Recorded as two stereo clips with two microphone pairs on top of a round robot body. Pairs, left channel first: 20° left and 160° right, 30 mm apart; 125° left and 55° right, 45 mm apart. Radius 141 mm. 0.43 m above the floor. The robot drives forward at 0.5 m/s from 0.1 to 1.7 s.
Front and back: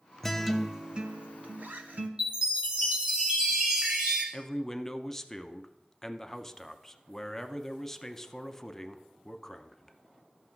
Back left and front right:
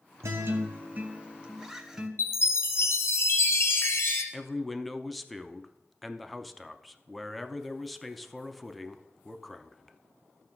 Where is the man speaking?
85° left, 0.7 m.